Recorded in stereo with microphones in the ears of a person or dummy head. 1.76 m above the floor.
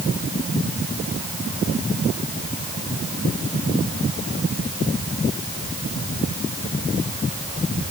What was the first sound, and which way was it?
Only background noise.